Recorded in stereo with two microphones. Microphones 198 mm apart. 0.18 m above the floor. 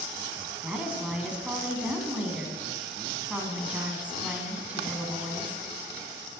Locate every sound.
0.6 s a woman speaking: 5° right (ahead or behind), 1.4 m